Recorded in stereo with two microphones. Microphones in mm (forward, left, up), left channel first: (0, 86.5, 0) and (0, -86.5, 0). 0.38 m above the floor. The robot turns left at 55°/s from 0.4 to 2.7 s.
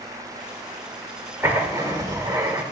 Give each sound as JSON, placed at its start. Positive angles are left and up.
{"t": 1.4, "sound": "writing", "side_deg": -15, "distance_m": 1.0}